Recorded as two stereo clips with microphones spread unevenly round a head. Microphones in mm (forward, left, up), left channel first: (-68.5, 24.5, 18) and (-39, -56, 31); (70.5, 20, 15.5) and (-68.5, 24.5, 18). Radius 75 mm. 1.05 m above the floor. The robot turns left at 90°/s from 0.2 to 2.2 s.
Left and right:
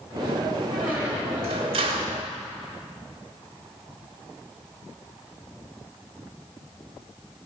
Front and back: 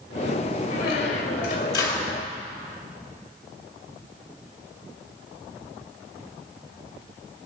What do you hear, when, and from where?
0.7 s a squeak: 25° left, 2 m; by 2.2 s 110° right, 2 m